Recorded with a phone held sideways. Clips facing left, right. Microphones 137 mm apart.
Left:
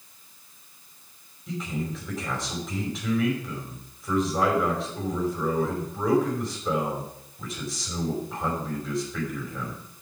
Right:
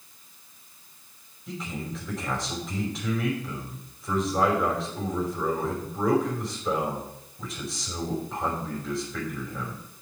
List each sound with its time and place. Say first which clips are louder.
1.5 s a man speaking: left 3 dB; centre (ahead or behind), 5 m